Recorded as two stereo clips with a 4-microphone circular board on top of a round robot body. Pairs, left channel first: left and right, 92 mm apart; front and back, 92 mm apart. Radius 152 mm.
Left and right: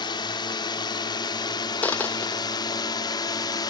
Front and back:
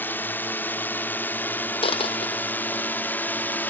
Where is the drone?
65° left.